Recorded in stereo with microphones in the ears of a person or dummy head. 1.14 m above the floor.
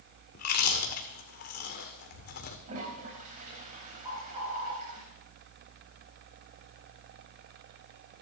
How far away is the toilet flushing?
About 3.5 m.